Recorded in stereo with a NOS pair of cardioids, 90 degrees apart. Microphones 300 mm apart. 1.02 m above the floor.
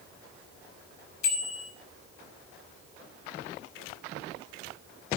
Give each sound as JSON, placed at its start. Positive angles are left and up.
{"t": 1.2, "sound": "a bicycle bell", "azimuth_deg": 70, "distance_m": 5.0}